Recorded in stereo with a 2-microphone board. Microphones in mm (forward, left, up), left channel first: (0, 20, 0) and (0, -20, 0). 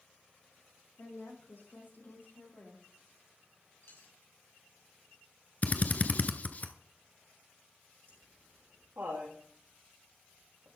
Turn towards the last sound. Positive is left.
turn(degrees=-70)  # may be behind; listen again after turning